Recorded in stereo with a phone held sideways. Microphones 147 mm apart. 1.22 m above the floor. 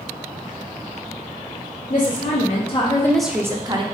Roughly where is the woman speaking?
Left.